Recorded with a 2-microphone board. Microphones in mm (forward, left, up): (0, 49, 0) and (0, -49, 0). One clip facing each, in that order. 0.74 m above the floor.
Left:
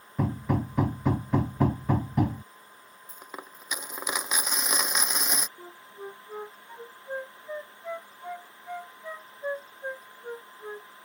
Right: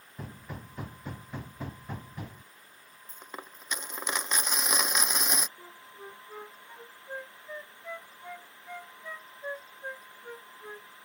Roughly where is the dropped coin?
Centre.